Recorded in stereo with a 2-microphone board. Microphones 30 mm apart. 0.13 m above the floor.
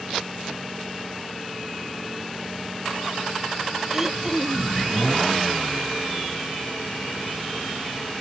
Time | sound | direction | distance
3.9 | throat clearing | 15° right (ahead or behind) | ?